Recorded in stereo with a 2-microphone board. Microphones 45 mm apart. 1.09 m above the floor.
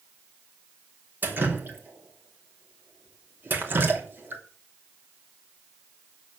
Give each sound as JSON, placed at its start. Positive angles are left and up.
{"t": 1.2, "sound": "dripping", "side_deg": -45, "distance_m": 2.5}